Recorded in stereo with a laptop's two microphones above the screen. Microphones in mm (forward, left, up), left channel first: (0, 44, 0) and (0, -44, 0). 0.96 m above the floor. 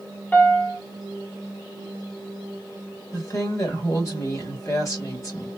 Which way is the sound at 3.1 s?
40° left (ahead or behind).